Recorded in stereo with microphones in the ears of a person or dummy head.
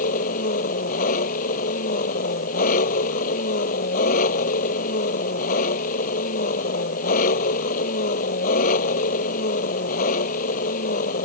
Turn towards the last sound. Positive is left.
turn(degrees=50)  # may be behind; listen again after turning